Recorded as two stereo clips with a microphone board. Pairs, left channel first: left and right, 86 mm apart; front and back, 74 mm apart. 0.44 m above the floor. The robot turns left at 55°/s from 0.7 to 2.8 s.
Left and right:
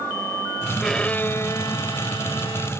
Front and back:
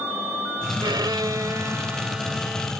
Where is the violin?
Straight behind; by 2.7 s 75° left.